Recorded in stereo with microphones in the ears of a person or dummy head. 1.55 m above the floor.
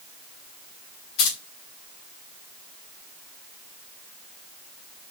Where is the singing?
I don't hear singing.